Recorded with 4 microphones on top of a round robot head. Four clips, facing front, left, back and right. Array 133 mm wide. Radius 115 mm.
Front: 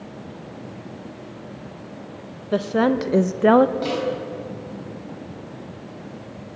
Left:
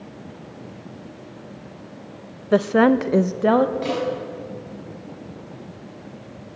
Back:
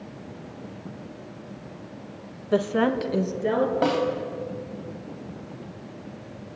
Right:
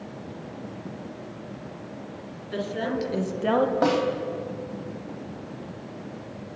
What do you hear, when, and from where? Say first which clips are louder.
2.5 s a woman speaking: left 13 dB, front 2 dB; 90° left, 1.4 m; by 3.7 s 10° left, 1.2 m
3.8 s a snare drum: right 2 dB, back 2 dB; 125° right, 3.5 m